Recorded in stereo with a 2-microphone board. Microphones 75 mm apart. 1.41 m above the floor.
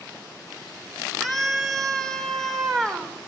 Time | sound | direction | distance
1.2 | a scream | centre (ahead or behind) | 5 m